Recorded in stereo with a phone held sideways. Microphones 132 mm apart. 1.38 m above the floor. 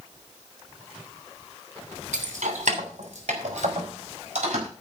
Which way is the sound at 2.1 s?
75° right (ahead or behind).